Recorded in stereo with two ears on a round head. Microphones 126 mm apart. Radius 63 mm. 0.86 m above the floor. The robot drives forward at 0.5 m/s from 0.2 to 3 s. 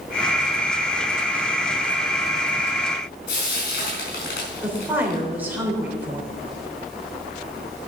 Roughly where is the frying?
Left.